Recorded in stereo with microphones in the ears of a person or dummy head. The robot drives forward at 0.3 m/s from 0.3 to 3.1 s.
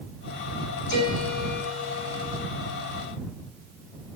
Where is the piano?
65° left (ahead or behind), 7.5 m; by 2.4 s 60° left (ahead or behind), 7.5 m.